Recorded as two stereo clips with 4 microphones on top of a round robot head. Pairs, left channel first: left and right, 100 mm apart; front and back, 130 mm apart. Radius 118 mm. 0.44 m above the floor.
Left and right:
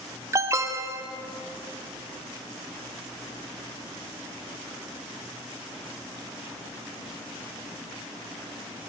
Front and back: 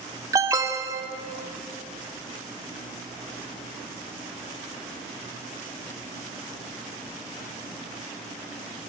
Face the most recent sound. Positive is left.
turn(degrees=-130)